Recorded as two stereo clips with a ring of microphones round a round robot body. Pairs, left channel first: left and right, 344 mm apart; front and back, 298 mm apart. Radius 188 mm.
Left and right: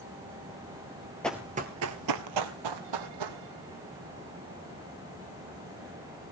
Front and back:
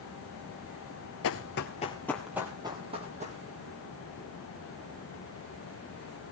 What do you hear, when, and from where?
1.2 s running footsteps: 5° left, 0.9 m; by 3.4 s 110° right, 2 m